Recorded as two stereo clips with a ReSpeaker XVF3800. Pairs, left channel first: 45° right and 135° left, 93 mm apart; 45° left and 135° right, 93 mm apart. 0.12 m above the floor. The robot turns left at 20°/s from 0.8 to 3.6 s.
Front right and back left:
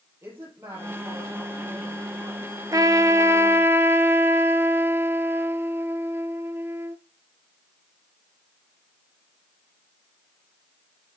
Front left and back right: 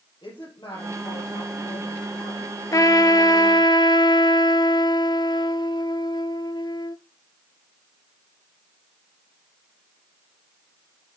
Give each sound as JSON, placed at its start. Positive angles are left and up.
{"t": 0.2, "sound": "a woman speaking", "azimuth_deg": 70, "distance_m": 4.0}
{"t": 2.7, "sound": "a trumpet", "azimuth_deg": 90, "distance_m": 0.5}